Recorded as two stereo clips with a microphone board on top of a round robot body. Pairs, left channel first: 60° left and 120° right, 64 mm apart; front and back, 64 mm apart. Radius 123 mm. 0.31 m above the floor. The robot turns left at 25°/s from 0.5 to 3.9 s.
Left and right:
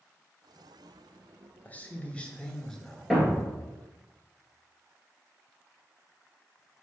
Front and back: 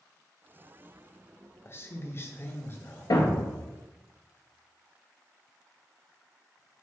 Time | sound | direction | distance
1.6 | a man speaking | 10° left | 1.3 m
3.1 | a thud | 30° right | 1.5 m